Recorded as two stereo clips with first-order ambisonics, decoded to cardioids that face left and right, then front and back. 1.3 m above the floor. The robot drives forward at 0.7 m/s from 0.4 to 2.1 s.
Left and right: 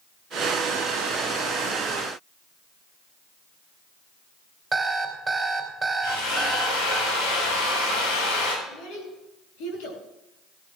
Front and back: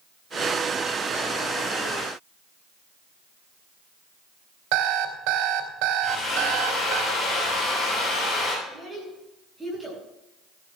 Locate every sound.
4.7 s an alarm clock: 170° right, 2.5 m
6.0 s a drill: 70° left, 7.5 m
8.7 s a child speaking: 95° left, 7.5 m